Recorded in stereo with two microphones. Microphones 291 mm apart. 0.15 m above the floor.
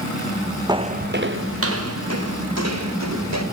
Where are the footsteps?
15° right (ahead or behind), 0.7 m; by 3.4 s 70° right (ahead or behind), 3 m.